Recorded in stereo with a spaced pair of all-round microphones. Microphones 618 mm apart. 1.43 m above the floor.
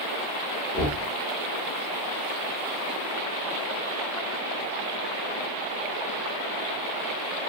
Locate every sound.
0.7 s knocking: 10° left (ahead or behind), 1.3 m